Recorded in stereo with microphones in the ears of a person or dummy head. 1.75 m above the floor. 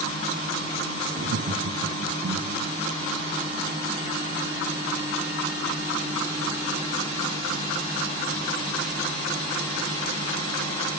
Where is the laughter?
45° right (ahead or behind), 0.8 m.